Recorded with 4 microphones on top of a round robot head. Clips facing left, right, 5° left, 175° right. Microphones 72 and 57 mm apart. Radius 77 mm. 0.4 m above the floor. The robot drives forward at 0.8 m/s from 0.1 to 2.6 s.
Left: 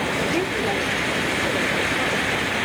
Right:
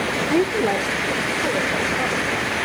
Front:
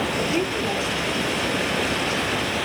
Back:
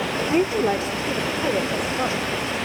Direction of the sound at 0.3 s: 125° right.